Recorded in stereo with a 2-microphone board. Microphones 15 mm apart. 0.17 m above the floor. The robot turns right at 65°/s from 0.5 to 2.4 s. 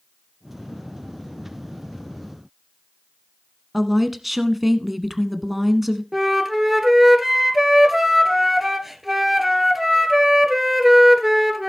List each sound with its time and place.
3.7 s a woman speaking: 10° right (ahead or behind), 1.3 m
6.1 s a flute: 20° right (ahead or behind), 1.6 m